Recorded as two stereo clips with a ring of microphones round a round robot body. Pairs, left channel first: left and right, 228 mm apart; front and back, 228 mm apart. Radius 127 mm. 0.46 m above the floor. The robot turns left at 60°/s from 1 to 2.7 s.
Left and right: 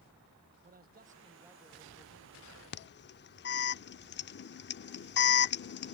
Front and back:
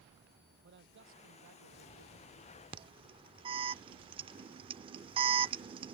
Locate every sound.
0.6 s a man speaking: 140° right; by 2.6 s 120° left
2.7 s an alarm: 115° left